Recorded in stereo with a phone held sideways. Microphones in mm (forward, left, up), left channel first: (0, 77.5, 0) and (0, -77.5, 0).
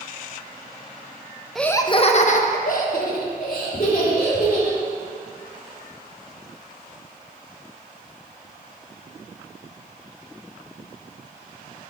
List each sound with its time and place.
1.6 s laughter: centre (ahead or behind), 0.6 m; by 4.8 s 65° left (ahead or behind), 3.5 m